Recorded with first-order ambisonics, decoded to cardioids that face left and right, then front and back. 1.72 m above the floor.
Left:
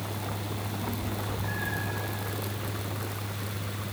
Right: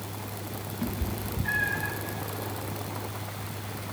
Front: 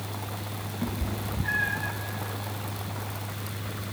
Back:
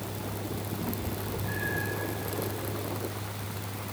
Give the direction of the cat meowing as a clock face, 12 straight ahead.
1 o'clock.